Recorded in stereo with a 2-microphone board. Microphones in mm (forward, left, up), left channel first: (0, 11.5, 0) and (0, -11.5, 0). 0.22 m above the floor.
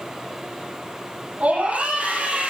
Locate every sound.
1.4 s a scream: 65° right (ahead or behind), 7 m; by 2.5 s 60° right (ahead or behind), 7 m